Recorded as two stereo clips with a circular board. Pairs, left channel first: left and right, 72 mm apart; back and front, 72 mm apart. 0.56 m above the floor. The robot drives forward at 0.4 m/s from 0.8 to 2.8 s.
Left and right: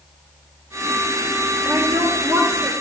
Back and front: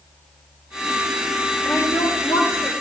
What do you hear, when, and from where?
1.6 s a woman speaking: 135° right, 9.5 m; by 2.7 s 140° right, 10 m